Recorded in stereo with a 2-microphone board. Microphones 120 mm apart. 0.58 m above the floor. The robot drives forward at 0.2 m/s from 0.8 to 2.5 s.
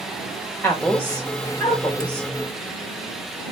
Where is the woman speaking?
15° left (ahead or behind), 1.8 m; by 2.3 s 10° left (ahead or behind), 2 m.